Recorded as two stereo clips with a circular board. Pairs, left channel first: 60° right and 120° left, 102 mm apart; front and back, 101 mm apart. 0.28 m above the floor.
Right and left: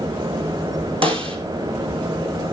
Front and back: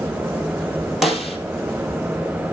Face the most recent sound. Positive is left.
turn(degrees=90)